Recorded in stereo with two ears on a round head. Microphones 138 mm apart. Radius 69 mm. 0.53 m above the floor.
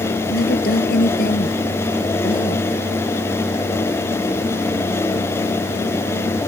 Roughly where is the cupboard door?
No cupboard door in this recording.